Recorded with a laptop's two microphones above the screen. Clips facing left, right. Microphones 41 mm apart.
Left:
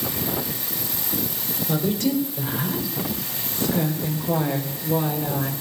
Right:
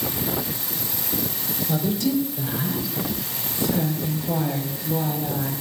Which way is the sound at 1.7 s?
45° left (ahead or behind).